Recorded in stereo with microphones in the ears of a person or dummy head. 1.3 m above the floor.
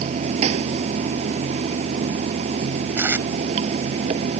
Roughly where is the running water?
Right.